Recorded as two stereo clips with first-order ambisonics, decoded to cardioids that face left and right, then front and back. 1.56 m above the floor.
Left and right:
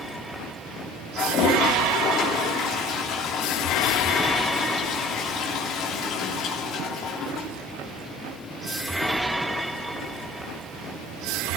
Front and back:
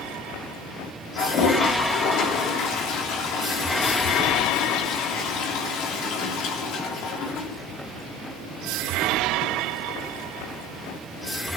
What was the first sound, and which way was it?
A toilet flushing, 40° left.